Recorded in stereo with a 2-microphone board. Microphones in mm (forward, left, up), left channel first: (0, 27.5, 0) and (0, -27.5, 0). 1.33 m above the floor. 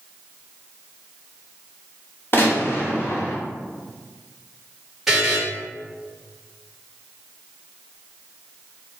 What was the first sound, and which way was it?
A gunshot, 45° left (ahead or behind).